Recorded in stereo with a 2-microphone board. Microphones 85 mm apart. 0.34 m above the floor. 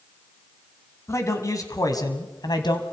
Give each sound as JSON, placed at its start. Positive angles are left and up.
{"t": 1.1, "sound": "a man speaking", "side_deg": 35, "distance_m": 3.0}